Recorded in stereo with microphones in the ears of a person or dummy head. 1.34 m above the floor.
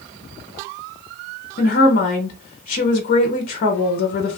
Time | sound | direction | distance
1.6 | a woman speaking | 50° left (ahead or behind) | 0.7 m